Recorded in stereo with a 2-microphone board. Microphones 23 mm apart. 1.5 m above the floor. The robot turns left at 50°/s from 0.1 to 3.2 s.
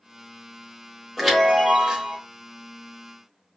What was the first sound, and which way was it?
A chime, straight ahead.